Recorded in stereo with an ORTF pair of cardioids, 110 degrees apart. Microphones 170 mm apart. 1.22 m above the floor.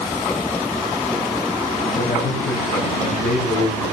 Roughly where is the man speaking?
Ahead left.